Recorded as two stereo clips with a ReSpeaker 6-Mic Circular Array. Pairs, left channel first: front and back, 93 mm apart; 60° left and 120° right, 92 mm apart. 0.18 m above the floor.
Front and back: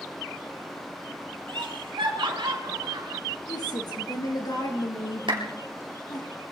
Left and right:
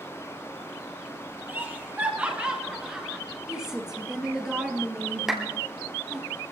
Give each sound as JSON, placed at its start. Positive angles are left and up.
{"t": 1.5, "sound": "laughter", "azimuth_deg": 175, "distance_m": 4.0}
{"t": 3.5, "sound": "a woman speaking", "azimuth_deg": -40, "distance_m": 3.0}
{"t": 5.3, "sound": "a clap", "azimuth_deg": 155, "distance_m": 2.5}